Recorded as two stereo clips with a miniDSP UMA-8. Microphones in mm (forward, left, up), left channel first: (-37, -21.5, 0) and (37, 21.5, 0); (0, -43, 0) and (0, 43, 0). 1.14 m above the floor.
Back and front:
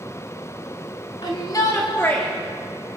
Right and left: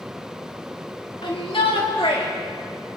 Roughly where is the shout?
Behind right.